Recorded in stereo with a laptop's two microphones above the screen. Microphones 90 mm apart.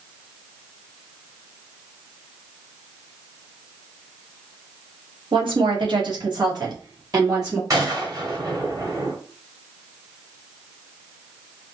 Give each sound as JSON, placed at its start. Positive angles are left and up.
{"t": 5.3, "sound": "a woman speaking", "side_deg": -65, "distance_m": 1.5}
{"t": 7.7, "sound": "a gunshot", "side_deg": -40, "distance_m": 1.5}